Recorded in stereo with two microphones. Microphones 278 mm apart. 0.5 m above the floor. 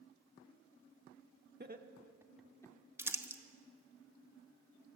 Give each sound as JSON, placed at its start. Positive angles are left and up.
{"t": 1.6, "sound": "laughter", "side_deg": -35, "distance_m": 1.2}
{"t": 3.0, "sound": "crumpling", "side_deg": -10, "distance_m": 1.0}